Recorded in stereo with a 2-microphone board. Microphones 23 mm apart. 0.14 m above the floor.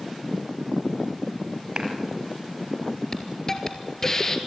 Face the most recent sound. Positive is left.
turn(degrees=20)  # may be behind; listen again after turning